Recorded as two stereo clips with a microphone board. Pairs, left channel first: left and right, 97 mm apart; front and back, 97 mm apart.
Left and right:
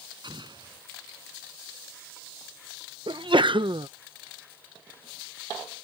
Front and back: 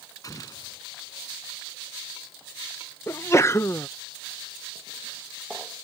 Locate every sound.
0.2 s an explosion: 55° right
3.1 s a sneeze: 60° right